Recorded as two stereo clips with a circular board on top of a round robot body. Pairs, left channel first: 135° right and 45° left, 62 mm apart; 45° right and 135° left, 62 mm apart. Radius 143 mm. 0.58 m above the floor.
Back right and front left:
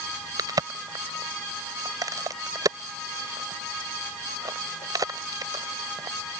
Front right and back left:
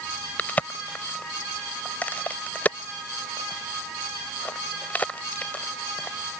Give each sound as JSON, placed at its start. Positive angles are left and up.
{"t": 0.4, "sound": "a crack", "azimuth_deg": 20}